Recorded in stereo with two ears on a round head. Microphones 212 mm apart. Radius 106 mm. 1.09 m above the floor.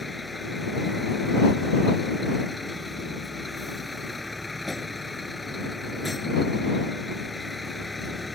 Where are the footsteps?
No footsteps in this recording.